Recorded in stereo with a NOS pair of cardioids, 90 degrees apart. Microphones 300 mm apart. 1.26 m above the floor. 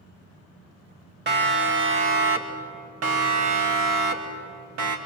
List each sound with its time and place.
1.3 s a siren: 40° right, 2.5 m; by 5.0 s 80° right, 3 m